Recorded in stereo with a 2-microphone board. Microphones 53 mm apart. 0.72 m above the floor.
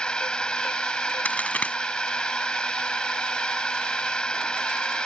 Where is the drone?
20° left (ahead or behind).